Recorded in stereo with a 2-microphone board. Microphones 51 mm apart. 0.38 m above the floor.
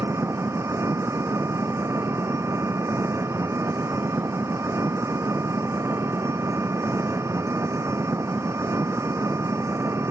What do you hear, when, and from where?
0.0 s an engine running: 85° right